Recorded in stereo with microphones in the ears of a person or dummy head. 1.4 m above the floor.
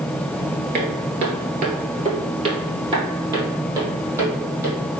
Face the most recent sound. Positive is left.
turn(degrees=-15)  # may be behind; listen again after turning